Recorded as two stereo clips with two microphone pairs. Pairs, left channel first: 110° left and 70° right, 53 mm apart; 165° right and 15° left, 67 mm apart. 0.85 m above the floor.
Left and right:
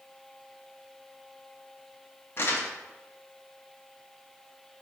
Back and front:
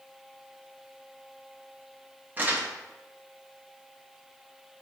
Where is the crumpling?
80° left, 0.7 m.